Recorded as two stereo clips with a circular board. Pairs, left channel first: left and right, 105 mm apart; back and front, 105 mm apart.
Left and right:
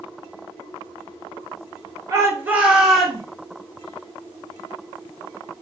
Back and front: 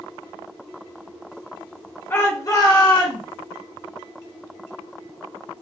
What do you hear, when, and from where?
2.1 s a shout: 125° right, 1.4 m; by 3.2 s 175° left, 1.7 m